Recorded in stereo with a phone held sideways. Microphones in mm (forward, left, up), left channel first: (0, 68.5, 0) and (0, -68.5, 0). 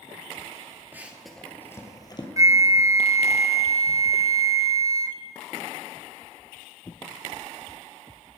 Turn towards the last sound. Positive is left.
turn(degrees=-25)  # may be behind; listen again after turning